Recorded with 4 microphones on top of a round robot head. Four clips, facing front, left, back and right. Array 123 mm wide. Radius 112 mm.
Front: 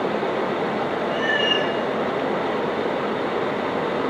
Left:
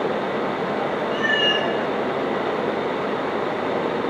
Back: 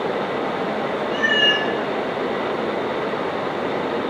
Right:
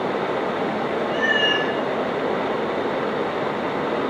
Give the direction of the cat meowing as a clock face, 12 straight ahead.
6 o'clock.